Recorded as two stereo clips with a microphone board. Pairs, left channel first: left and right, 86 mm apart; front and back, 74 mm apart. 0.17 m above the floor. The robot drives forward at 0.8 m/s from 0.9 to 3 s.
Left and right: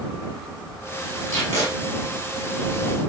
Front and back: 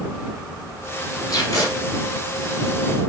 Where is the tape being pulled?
30° left, 2.5 m; by 1.7 s 35° left, 2 m.